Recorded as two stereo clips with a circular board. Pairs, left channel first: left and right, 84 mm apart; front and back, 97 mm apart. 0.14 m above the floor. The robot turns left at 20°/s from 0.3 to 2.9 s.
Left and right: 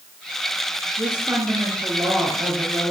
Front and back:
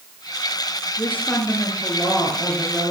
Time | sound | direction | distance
1.0 | a woman speaking | 65° right | 2.5 m